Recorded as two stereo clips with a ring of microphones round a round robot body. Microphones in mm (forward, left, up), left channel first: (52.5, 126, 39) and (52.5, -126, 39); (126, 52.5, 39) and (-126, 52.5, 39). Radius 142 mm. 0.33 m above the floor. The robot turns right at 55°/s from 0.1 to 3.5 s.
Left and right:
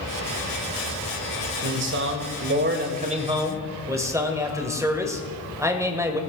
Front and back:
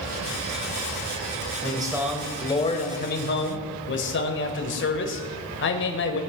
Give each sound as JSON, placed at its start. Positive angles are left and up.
{"t": 1.6, "sound": "a man speaking", "azimuth_deg": -120, "distance_m": 2.0}